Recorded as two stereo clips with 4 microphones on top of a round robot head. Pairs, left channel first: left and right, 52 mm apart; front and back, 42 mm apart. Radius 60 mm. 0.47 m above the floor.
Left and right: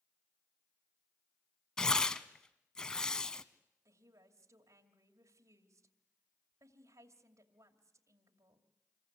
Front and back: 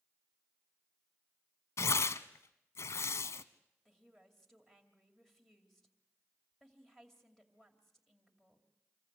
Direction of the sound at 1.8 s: 15° left.